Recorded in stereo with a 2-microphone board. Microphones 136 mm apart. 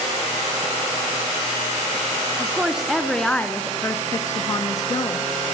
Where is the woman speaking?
10° right (ahead or behind), 2.5 m; by 5.2 s 35° left (ahead or behind), 2.5 m.